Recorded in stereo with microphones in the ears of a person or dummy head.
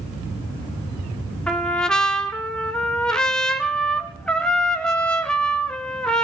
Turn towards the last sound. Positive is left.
turn(degrees=5)  # may be behind; listen again after turning